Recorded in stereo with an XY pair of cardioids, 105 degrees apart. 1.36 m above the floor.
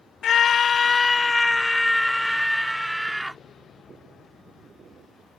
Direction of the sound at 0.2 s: 60° left.